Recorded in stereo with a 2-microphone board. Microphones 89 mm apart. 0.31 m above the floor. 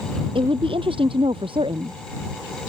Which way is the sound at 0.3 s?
80° right.